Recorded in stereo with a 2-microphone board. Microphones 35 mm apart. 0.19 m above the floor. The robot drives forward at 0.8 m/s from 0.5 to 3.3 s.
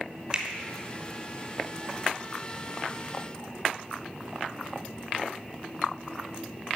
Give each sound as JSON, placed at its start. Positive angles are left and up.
{"t": 0.3, "sound": "a finger snap", "side_deg": -20, "distance_m": 1.4}